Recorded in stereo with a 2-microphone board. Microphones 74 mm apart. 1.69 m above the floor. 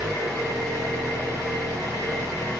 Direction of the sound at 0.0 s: 15° right (ahead or behind).